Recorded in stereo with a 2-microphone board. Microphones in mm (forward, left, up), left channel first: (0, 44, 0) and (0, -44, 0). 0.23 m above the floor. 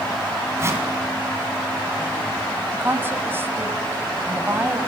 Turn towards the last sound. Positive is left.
turn(degrees=-25)  # may be behind; listen again after turning